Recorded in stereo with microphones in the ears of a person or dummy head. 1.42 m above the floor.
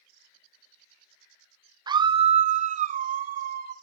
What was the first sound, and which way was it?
A scream, 20° right (ahead or behind).